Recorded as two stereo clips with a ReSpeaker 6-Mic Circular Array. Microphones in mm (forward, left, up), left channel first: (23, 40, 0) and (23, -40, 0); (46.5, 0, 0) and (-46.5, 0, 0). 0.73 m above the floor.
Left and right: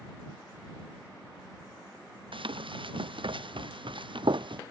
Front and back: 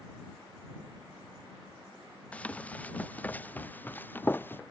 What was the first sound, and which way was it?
Running footsteps, 75° right.